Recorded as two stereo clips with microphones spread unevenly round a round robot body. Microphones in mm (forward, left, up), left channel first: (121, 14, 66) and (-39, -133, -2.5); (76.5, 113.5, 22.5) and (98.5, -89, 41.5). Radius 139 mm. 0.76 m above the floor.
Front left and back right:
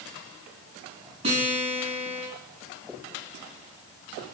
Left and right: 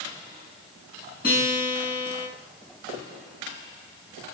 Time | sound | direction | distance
1.2 | a guitar | 155° left | 8 m